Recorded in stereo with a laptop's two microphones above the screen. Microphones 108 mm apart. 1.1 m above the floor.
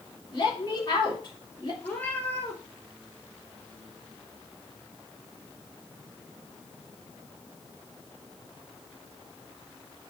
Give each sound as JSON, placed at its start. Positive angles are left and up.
{"t": 0.3, "sound": "a woman speaking", "side_deg": 45, "distance_m": 3.5}
{"t": 1.8, "sound": "a cat meowing", "side_deg": 15, "distance_m": 1.9}